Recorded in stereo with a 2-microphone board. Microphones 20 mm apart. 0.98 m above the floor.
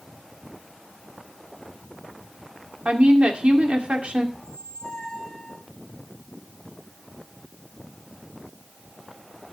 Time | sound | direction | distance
2.9 | a woman speaking | 80° right | 2 m
4.3 | a squeak | 60° left (ahead or behind) | 2.5 m